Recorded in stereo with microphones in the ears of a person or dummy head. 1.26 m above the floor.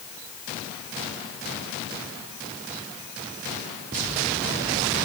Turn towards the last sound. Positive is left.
No sound to turn to.